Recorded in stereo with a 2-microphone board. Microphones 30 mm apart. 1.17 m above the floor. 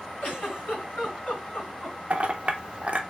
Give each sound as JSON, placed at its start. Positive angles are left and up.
{"t": 0.2, "sound": "a giggle", "side_deg": 60, "distance_m": 3.0}
{"t": 2.1, "sound": "a clink", "side_deg": -45, "distance_m": 0.6}